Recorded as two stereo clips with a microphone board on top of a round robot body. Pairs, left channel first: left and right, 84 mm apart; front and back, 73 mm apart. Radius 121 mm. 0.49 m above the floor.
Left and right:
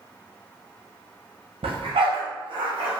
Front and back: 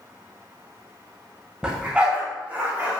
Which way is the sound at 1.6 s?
100° right.